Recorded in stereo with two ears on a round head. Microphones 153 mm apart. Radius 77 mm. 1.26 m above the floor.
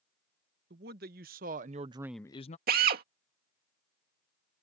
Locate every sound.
0.7 s a man speaking: 60° right (ahead or behind); by 2.6 s 45° left (ahead or behind)
2.7 s a drill: 60° right (ahead or behind)